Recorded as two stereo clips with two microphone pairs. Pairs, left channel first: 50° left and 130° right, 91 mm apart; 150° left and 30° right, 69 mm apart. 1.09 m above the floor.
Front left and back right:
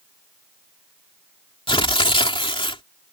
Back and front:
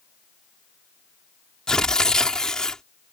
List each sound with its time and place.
1.7 s tearing paper: 65° left